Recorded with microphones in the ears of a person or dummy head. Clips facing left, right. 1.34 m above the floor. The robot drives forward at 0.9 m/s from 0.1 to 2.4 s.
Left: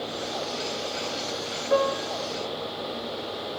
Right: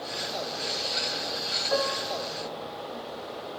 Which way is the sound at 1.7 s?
40° left (ahead or behind).